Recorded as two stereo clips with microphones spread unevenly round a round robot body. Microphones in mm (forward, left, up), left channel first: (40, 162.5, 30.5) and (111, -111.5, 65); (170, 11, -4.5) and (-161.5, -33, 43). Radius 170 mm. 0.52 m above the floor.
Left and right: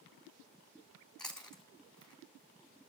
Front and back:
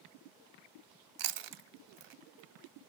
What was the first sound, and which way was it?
Chewing, 165° right.